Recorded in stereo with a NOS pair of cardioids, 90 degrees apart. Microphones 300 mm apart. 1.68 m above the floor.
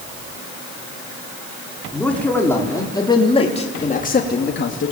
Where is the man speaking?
5° left, 5 m; by 4.9 s 45° left, 3 m.